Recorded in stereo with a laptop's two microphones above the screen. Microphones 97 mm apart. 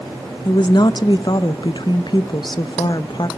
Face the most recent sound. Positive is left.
turn(degrees=50)  # may be behind; listen again after turning